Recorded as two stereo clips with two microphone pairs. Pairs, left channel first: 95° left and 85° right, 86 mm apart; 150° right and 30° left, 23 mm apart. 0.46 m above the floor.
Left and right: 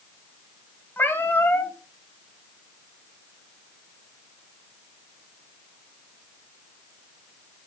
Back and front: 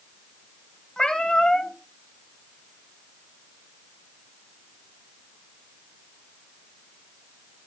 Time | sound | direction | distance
1.0 | a cat meowing | 155° left | 1.5 m